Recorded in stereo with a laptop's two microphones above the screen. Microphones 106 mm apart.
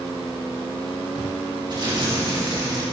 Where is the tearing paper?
45° right (ahead or behind), 2.5 m.